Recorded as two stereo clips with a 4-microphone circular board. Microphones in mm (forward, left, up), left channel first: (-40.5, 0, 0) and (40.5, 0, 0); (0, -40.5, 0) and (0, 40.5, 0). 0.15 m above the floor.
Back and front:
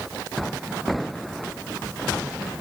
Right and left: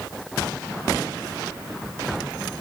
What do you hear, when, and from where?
Only background noise.